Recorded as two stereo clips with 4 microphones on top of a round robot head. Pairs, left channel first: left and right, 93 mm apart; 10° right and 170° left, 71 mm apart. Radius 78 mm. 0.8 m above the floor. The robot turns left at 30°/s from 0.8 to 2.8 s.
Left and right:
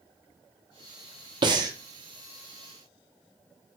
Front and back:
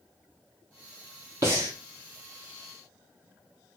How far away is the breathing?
About 0.6 m.